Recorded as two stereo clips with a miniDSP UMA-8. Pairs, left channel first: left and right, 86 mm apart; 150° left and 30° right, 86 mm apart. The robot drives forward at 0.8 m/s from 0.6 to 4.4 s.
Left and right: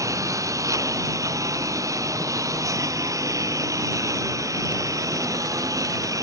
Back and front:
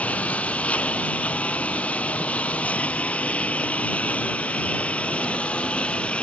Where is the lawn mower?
135° right.